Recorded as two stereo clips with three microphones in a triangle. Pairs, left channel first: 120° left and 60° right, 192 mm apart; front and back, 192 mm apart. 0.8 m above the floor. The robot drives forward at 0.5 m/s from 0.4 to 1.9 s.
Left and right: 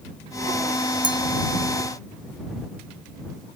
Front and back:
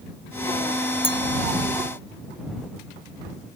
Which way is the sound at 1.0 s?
60° right.